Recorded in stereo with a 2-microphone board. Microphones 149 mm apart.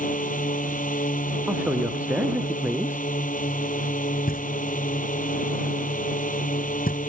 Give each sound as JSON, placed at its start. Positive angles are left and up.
{"t": 0.0, "sound": "a drone", "side_deg": 65}
{"t": 1.5, "sound": "a man speaking", "side_deg": -10}
{"t": 4.3, "sound": "knocking", "side_deg": 80}